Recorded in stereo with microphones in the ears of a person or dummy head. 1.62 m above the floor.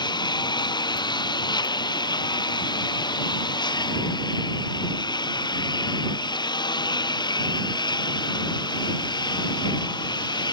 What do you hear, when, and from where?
0.0 s a lawn mower: 25° left (ahead or behind)